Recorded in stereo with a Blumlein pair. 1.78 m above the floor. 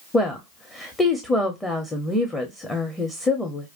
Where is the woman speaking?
10° left, 1.0 m.